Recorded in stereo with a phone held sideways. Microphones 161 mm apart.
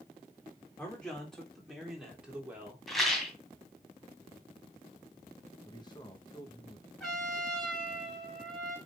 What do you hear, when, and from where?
0.8 s a man speaking: 10° left (ahead or behind), 3.5 m; by 2.8 s 10° right (ahead or behind), 3.5 m
2.9 s a rattle: centre (ahead or behind), 2 m
5.7 s a man speaking: 25° left (ahead or behind), 1.4 m
7.0 s a trumpet: centre (ahead or behind), 3.5 m